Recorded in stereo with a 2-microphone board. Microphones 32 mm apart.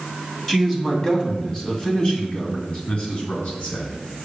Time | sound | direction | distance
0.5 | a man speaking | 15° left (ahead or behind) | 1.9 m